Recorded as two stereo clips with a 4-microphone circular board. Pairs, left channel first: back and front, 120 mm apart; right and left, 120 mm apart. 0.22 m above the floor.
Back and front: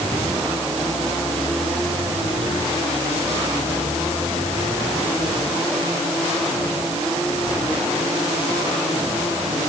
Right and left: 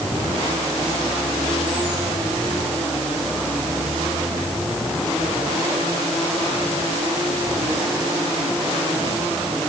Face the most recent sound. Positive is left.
No sound to turn to.